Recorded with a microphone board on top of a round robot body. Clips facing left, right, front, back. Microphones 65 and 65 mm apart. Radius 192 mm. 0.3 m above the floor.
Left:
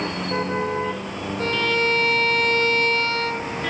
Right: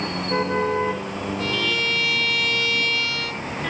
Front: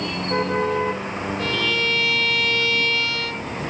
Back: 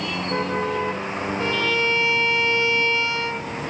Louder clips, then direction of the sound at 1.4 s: Left 5 dB, back 1 dB; 120° left.